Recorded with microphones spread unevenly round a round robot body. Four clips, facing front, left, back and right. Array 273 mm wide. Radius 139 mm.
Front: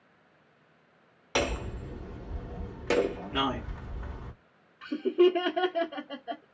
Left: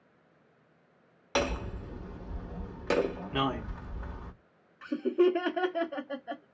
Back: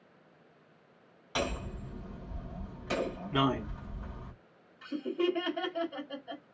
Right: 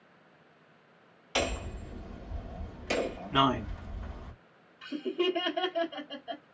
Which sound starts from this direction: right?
A man speaking, at 3.3 s.